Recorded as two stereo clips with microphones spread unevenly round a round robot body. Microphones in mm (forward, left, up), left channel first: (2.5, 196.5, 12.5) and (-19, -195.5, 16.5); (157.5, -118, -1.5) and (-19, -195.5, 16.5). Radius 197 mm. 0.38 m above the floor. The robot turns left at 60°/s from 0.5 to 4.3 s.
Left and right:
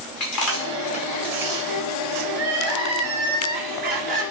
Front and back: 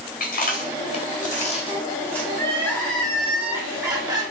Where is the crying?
5° right, 1.5 m; by 4.2 s 120° right, 1.5 m.